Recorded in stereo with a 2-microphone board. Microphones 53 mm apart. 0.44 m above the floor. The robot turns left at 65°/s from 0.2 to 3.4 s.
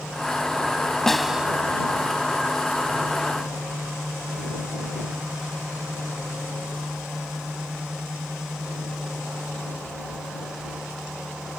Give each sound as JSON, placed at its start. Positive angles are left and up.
{"t": 1.1, "sound": "a snare drum", "side_deg": 5}